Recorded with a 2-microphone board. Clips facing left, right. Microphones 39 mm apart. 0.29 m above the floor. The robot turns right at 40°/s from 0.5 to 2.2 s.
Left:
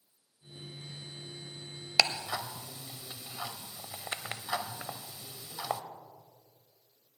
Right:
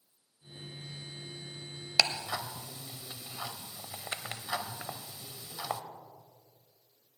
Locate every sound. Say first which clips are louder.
2.0 s ticking: left 1 dB; 15° left (ahead or behind), 0.5 m; by 5.8 s 20° left (ahead or behind), 0.5 m